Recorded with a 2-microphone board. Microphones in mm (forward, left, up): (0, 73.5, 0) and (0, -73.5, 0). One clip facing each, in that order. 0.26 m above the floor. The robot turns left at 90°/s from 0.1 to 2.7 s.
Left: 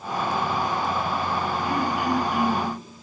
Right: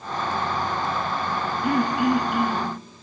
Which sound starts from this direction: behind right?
Throat clearing, at 1.6 s.